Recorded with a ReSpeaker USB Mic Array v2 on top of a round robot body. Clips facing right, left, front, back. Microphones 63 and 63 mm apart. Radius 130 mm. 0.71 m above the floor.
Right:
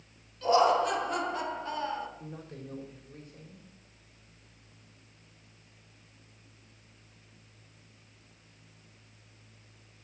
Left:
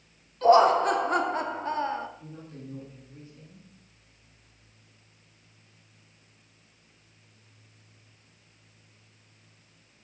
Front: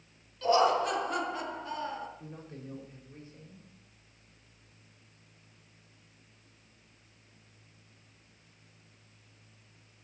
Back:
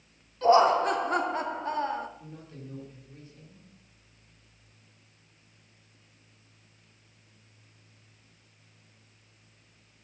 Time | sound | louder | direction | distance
0.4 | laughter | left 5 dB, back 5 dB | 130° left | 2.5 m
2.2 | a man speaking | even, even | 50° right | 4.5 m